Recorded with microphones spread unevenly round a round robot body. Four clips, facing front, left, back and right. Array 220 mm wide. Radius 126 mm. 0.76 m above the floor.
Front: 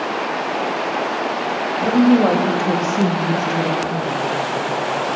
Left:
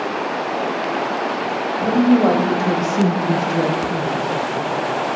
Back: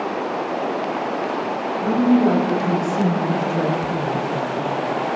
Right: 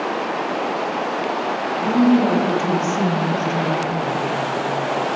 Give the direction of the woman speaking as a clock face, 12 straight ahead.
12 o'clock.